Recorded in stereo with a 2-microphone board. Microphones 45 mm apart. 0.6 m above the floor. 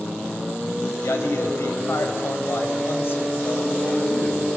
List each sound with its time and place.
1.0 s a man speaking: 75° left (ahead or behind), 2.5 m; by 4.5 s 35° left (ahead or behind), 3 m